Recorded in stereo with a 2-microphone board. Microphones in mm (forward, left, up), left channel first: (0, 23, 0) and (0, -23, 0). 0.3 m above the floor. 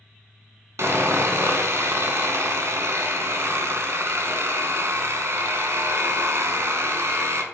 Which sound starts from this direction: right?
Sawing, at 0.8 s.